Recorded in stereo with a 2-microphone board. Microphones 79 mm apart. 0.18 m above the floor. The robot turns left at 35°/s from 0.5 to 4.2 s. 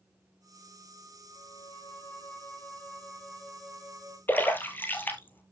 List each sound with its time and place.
1.3 s a violin: 80° left, 2.5 m; by 4.2 s 20° right, 2.5 m
4.3 s a splash: 25° left (ahead or behind), 1.5 m